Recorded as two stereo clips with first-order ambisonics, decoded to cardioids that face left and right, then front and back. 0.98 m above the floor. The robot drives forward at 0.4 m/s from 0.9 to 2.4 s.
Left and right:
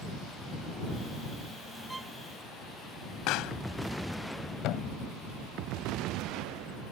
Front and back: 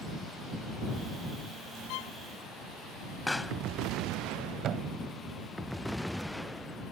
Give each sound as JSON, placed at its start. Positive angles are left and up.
{"t": 1.9, "sound": "a violin", "azimuth_deg": -10}
{"t": 3.3, "sound": "a pop", "azimuth_deg": 85}
{"t": 4.6, "sound": "a thud", "azimuth_deg": 125}